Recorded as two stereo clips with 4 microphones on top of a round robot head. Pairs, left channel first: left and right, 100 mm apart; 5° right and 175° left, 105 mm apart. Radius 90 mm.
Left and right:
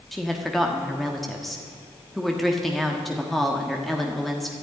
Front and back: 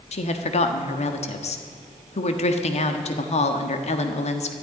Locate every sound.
0.1 s a woman speaking: straight ahead, 1.4 m